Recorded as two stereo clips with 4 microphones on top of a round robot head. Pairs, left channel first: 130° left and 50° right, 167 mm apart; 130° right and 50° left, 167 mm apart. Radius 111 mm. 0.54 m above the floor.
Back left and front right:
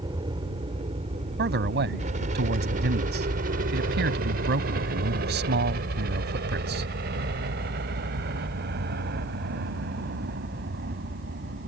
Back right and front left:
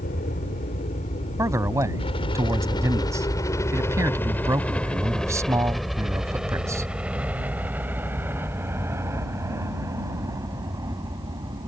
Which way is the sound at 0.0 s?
110° right.